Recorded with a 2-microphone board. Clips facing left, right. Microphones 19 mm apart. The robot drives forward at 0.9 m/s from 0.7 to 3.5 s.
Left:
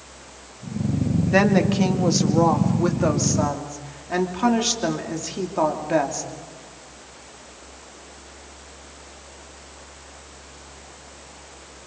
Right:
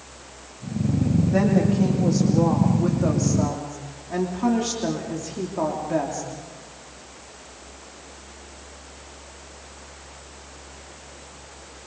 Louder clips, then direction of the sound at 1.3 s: Left 4 dB; 80° left.